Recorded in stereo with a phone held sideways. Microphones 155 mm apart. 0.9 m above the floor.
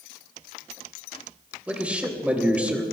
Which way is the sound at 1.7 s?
10° right (ahead or behind).